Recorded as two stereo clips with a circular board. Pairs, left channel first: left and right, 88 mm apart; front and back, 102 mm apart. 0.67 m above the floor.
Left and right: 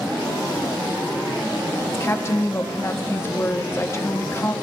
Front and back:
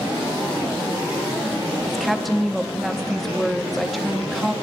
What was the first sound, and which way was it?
A woman speaking, 90° left.